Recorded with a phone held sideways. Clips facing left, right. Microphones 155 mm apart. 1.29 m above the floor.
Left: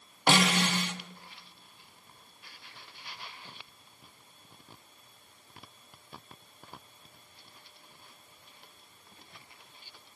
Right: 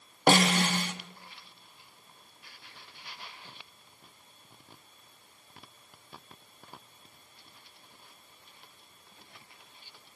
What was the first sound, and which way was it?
A snare drum, 45° right (ahead or behind).